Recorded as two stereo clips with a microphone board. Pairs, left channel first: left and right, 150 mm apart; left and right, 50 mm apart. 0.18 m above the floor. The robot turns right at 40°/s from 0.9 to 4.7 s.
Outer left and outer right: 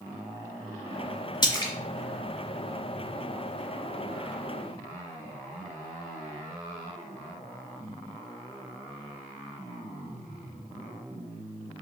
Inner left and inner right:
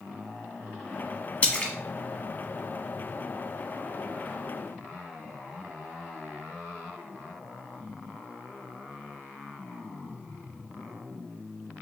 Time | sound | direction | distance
1.4 | a splash | 30° left (ahead or behind) | 0.9 m